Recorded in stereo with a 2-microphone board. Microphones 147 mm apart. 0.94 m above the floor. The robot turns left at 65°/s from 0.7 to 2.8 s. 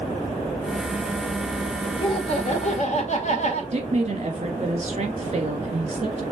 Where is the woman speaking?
50° right (ahead or behind), 1.4 m.